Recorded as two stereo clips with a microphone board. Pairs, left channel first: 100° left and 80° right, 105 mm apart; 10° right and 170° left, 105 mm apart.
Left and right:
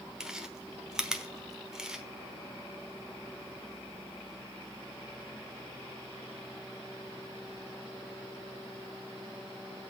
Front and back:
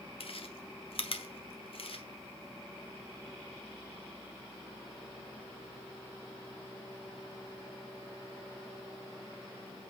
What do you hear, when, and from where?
0.2 s chewing: 5° left, 1.1 m